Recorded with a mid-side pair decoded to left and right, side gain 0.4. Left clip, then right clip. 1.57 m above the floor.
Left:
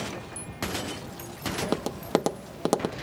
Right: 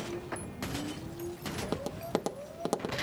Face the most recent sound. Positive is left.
turn(degrees=55)